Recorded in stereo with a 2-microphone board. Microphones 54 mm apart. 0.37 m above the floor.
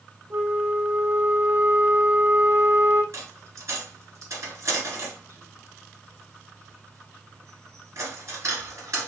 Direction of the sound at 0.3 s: 55° right (ahead or behind).